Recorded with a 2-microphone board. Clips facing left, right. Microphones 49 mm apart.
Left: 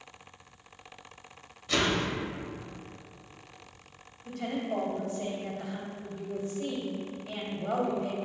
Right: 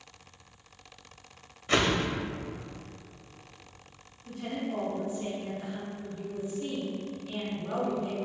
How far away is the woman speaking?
About 2.5 m.